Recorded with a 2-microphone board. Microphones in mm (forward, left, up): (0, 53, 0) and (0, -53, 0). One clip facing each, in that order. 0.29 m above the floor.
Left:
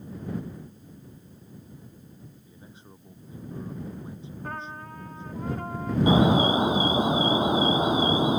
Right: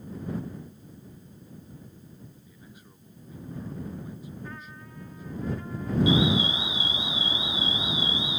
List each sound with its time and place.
2.5 s a man speaking: 25° left (ahead or behind)
4.4 s a trumpet: 55° left (ahead or behind)
6.1 s an alarm: 45° left (ahead or behind)